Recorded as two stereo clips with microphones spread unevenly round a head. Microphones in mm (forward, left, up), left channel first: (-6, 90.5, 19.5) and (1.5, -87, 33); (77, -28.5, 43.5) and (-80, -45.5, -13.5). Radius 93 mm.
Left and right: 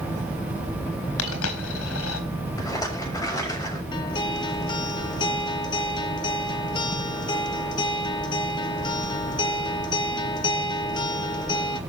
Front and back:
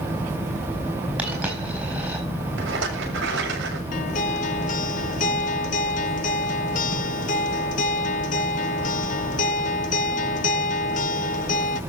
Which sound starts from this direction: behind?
A rattle, at 2.6 s.